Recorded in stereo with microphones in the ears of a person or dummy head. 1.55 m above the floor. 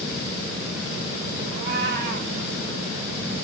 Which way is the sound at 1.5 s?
60° right (ahead or behind).